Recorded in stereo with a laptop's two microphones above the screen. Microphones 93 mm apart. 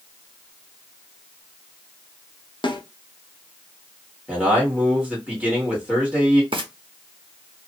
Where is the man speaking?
10° right (ahead or behind), 1.7 m.